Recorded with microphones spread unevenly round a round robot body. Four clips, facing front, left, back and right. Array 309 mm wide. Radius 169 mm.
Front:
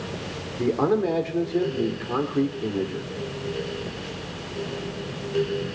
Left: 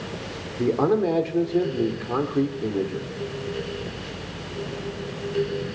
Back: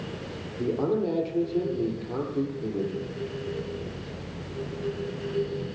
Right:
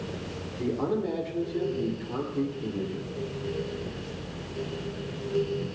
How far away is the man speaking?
About 2 m.